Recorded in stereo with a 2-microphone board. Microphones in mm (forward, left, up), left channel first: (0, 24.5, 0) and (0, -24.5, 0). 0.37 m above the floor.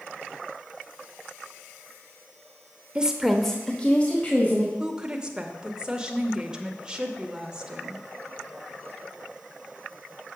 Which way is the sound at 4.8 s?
15° right (ahead or behind).